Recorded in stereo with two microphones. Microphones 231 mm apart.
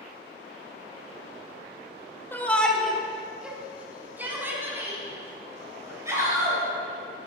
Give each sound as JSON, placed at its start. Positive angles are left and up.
{"t": 2.3, "sound": "a shout", "side_deg": 10, "distance_m": 2.0}